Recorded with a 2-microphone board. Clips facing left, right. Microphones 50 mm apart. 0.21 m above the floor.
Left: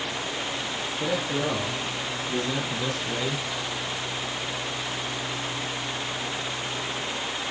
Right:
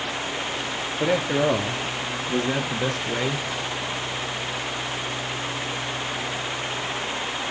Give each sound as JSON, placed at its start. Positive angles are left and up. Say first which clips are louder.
{"t": 1.0, "sound": "a man speaking", "louder": "right 6 dB", "side_deg": -70, "distance_m": 3.5}